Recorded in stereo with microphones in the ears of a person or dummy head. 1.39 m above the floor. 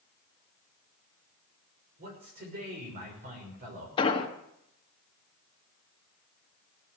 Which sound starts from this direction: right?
A man speaking, at 2.0 s.